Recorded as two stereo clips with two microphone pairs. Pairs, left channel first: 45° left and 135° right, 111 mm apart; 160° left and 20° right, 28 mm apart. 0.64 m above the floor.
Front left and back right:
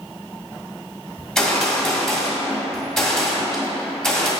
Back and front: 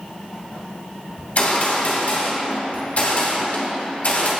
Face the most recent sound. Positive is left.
turn(degrees=125)